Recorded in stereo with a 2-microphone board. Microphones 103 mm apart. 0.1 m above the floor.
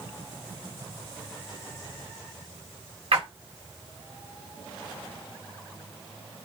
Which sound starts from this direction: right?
A splash, at 3.1 s.